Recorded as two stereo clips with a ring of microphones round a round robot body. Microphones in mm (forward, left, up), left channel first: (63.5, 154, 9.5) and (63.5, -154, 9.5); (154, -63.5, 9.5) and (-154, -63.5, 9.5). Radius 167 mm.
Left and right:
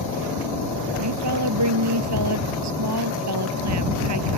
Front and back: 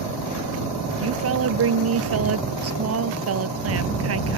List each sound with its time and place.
1.0 s a woman speaking: 135° right